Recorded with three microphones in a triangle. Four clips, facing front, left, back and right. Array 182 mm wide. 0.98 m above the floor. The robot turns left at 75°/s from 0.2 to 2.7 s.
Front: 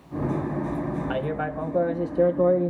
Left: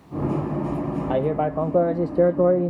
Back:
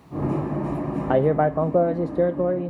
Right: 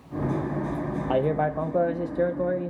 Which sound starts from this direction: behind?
A man speaking, at 1.1 s.